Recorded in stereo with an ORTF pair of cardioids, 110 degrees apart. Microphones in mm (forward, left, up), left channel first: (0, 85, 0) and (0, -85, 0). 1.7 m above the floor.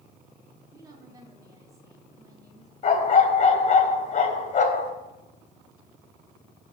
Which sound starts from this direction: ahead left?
A dog barking, at 2.8 s.